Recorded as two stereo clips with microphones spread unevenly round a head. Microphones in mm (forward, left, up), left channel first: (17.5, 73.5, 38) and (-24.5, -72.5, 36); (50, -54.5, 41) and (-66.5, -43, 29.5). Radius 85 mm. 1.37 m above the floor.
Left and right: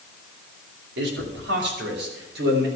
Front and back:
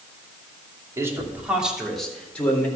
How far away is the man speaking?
About 2.5 m.